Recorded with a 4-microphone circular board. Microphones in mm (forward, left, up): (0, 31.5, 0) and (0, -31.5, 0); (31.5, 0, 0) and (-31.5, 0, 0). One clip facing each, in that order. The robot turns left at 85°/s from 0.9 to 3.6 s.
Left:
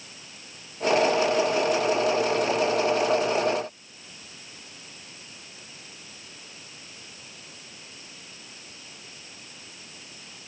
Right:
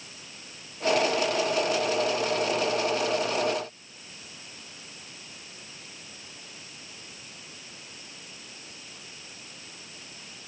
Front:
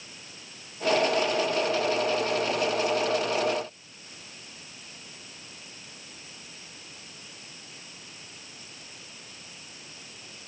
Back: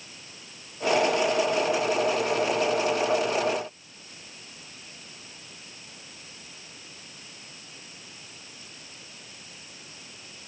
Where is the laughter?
I don't hear laughter.